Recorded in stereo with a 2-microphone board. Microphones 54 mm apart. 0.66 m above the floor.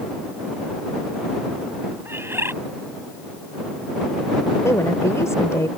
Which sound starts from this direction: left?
A woman speaking, at 4.6 s.